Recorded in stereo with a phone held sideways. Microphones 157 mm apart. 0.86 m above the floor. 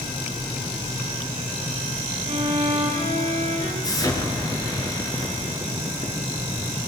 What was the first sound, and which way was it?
A violin, 45° right (ahead or behind).